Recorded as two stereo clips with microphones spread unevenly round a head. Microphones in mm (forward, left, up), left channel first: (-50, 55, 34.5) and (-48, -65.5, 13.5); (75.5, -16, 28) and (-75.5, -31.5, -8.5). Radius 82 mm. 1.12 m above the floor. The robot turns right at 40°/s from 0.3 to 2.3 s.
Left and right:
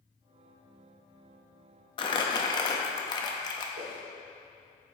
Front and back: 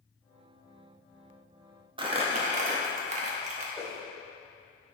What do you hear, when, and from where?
2.0 s crumpling: 120° left, 0.6 m; by 3.6 s 130° left, 0.6 m
3.8 s a whoosh: 80° right, 1.2 m